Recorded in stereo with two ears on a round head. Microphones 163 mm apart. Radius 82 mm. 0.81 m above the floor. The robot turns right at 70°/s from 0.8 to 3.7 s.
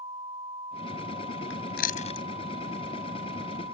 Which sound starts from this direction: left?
Chewing, at 1.5 s.